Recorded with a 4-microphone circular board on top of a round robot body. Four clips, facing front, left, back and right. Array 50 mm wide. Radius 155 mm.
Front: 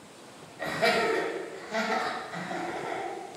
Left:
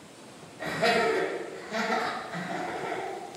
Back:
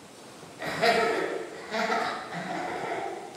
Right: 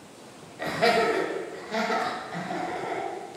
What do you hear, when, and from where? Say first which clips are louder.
0.6 s laughter: right 2 dB, back 2 dB; 110° right, 1.6 m; by 3.1 s 175° left, 1.9 m